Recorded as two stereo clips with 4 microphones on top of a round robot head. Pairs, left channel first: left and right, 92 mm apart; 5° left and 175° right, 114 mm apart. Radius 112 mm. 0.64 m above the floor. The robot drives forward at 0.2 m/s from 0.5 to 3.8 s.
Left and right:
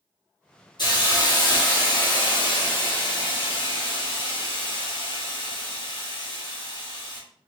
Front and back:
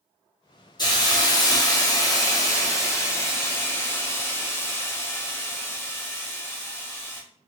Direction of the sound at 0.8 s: 55° left.